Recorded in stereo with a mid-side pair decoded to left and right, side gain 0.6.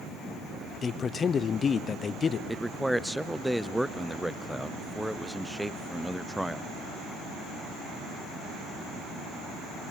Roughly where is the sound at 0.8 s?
Ahead left.